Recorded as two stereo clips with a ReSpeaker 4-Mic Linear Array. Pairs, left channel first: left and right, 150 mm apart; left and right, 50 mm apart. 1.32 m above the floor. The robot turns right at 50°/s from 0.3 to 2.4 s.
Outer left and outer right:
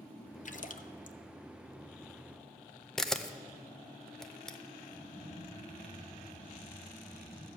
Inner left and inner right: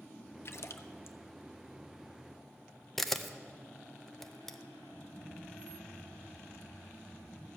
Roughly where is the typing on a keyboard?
Right.